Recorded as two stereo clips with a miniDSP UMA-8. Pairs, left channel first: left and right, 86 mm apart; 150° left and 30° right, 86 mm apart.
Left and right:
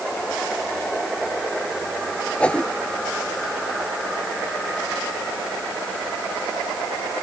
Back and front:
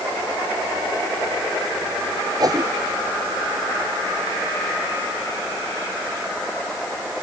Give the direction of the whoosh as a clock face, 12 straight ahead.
12 o'clock.